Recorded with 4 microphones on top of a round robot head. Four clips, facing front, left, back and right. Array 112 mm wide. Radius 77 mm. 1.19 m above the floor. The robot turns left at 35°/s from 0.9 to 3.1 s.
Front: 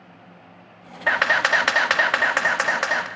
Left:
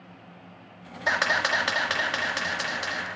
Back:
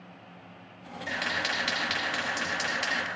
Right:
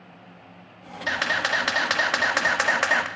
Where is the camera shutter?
20° left, 1.7 m; by 3.1 s 50° right, 1.7 m.